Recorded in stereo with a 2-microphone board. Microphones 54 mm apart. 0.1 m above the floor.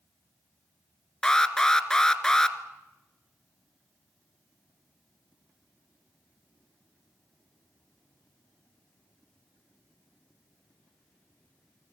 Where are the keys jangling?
I don't hear keys jangling.